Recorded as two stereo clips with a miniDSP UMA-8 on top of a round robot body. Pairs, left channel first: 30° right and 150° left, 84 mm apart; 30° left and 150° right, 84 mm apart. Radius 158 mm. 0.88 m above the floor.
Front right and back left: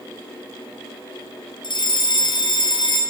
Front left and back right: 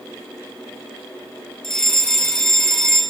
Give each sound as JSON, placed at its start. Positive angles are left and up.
{"t": 1.6, "sound": "a fire alarm", "azimuth_deg": -55, "distance_m": 4.0}